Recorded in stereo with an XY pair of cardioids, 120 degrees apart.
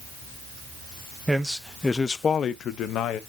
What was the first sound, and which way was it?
A man speaking, 15° right.